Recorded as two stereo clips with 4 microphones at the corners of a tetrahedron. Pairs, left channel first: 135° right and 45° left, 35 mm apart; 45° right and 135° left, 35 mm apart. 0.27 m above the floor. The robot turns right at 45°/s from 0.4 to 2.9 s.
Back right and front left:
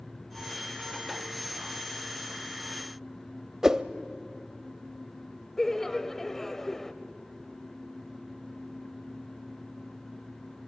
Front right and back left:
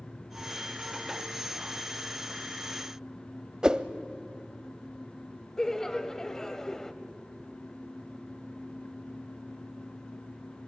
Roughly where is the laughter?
Right.